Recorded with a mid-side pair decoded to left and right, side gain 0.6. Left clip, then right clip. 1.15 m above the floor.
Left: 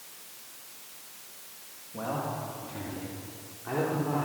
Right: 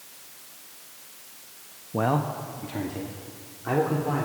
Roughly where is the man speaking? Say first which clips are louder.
Right 7 dB; ahead right.